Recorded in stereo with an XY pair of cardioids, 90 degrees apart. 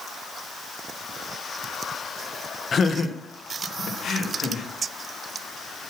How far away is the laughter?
About 1.3 m.